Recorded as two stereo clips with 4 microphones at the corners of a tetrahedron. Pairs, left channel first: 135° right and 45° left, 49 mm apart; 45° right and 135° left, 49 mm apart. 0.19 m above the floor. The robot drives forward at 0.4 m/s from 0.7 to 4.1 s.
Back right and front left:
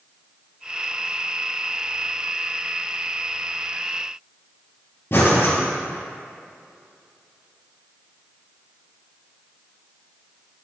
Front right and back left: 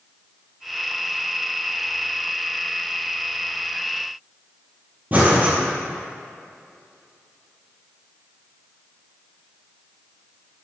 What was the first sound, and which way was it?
Breathing, 170° right.